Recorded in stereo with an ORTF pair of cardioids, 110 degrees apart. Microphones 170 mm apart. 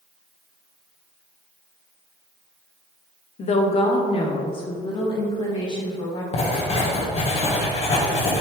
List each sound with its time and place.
3.4 s a woman speaking: 45° left, 0.8 m; by 6.2 s 25° left, 2.5 m
6.3 s writing: 40° left, 1.5 m